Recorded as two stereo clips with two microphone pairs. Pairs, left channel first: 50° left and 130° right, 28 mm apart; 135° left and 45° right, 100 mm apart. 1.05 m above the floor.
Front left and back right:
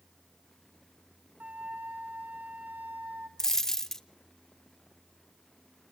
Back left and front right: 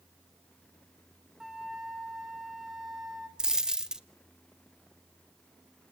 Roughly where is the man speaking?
I don't hear a man speaking.